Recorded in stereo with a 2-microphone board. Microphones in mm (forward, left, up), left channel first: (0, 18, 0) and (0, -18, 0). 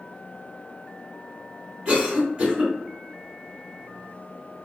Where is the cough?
20° right (ahead or behind), 1.7 m.